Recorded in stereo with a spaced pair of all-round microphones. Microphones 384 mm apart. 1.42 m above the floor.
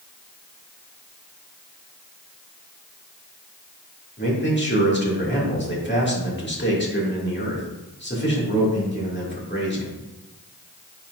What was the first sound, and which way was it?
A man speaking, 30° left (ahead or behind).